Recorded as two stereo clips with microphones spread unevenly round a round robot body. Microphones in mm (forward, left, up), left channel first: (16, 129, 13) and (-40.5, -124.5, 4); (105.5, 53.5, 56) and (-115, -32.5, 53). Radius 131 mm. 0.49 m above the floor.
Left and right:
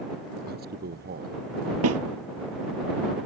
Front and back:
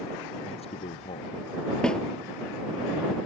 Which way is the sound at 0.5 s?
45° right.